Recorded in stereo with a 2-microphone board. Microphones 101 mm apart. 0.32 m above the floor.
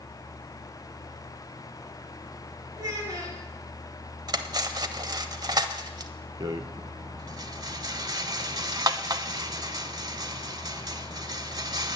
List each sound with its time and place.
2.8 s a child speaking: 35° right (ahead or behind), 4 m
4.3 s cutlery clinking: 40° right (ahead or behind), 0.7 m
6.4 s a rattle: 40° right (ahead or behind), 0.5 m